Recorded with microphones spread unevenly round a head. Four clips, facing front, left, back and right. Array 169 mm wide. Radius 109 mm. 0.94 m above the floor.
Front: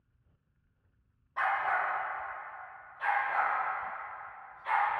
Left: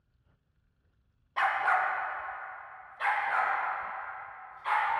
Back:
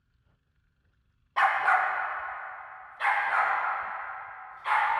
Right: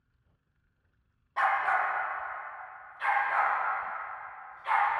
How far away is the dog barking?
About 0.9 m.